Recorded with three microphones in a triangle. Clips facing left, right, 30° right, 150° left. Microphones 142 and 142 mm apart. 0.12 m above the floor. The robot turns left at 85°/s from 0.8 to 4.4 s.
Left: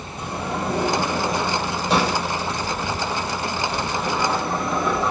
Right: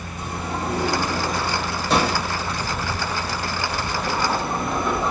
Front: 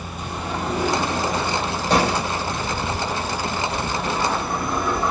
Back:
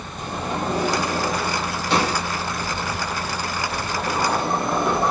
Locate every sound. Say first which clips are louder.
0.2 s a sliding door: left 2 dB, back 2 dB; 100° left, 3 m; by 5.1 s 155° left, 3 m